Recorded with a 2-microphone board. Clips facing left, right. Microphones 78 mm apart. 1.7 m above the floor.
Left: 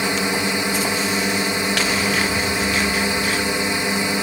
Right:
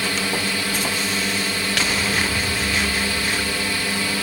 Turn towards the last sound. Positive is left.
turn(degrees=20)  # may be behind; listen again after turning